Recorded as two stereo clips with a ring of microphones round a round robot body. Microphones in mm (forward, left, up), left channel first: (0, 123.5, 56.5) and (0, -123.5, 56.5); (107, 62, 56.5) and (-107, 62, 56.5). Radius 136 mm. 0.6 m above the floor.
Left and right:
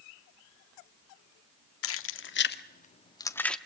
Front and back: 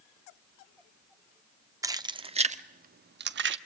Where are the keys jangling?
105° left, 1.2 m; by 3.6 s 175° left, 1.0 m.